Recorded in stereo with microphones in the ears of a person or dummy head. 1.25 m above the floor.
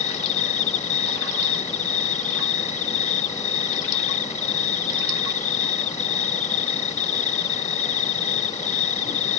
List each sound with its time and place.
0.0 s an insect: 40° left (ahead or behind)